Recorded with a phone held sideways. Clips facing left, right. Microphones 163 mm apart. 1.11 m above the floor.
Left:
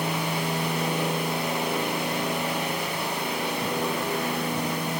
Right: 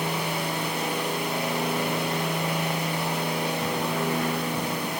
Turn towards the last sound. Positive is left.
No sound to turn to.